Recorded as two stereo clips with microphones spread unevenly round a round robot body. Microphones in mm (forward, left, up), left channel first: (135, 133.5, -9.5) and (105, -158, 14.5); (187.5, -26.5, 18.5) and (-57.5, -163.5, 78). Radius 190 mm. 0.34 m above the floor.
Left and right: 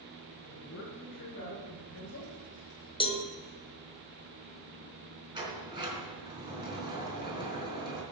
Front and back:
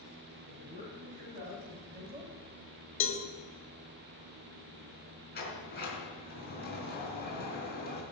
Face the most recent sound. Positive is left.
turn(degrees=-20)